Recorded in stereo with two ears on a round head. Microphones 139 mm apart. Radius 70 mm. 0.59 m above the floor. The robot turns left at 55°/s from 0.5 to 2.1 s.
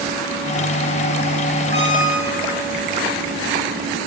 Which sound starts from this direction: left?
A squeak, at 1.7 s.